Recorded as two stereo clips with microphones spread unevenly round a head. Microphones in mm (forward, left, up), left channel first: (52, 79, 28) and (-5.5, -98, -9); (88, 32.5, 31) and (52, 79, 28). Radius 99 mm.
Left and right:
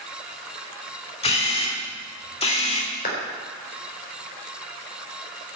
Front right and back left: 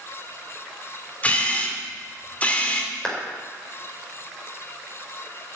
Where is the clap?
25° left, 4.5 m.